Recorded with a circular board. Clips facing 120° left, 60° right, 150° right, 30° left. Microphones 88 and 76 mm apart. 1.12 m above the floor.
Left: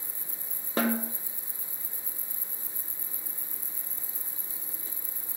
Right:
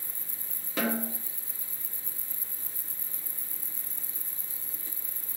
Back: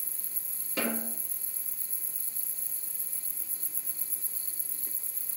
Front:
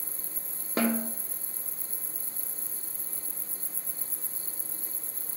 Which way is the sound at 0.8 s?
75° left.